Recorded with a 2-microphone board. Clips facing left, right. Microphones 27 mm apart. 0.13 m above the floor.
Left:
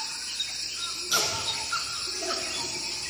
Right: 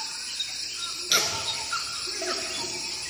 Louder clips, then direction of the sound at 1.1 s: Right 2 dB; 45° right (ahead or behind).